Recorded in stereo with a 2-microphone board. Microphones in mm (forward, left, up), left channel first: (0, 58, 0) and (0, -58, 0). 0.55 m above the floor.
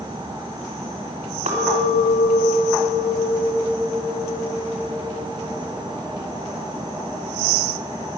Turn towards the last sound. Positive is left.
turn(degrees=-80)